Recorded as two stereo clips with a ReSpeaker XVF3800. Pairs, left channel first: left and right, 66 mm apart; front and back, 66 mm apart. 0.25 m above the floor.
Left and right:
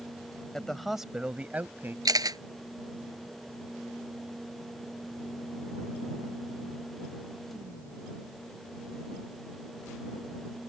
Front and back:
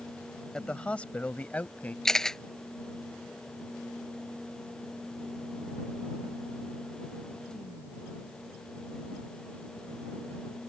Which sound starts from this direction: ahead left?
A man speaking, at 0.5 s.